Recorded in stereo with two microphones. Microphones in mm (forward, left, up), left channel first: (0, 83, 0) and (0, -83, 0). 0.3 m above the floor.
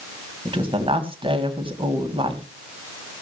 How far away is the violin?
No violin in this recording.